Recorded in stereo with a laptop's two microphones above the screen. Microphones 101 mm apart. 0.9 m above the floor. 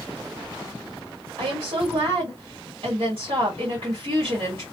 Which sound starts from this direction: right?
A woman speaking, at 1.4 s.